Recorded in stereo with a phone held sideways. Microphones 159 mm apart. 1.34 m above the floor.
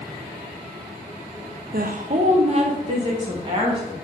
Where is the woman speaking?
65° right (ahead or behind), 0.6 m; by 3.9 s 30° right (ahead or behind), 2.5 m.